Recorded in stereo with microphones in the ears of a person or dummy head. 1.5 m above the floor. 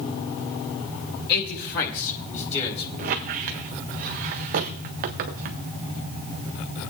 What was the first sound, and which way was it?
A man speaking, 60° left (ahead or behind).